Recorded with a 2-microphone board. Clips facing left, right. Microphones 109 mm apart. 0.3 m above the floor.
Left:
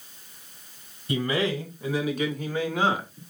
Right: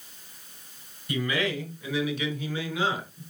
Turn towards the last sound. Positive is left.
turn(degrees=50)  # may be behind; listen again after turning